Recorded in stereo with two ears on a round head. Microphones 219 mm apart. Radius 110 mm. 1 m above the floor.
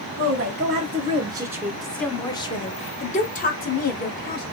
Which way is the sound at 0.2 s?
40° right (ahead or behind).